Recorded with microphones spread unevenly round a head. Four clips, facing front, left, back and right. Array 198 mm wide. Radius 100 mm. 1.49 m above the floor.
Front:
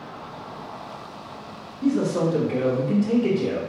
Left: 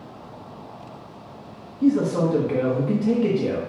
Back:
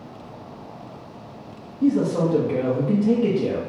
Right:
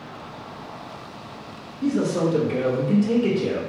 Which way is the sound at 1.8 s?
150° left.